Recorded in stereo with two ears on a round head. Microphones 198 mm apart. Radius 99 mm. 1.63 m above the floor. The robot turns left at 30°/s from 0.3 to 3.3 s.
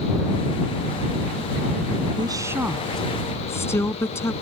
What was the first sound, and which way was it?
A woman speaking, 160° right.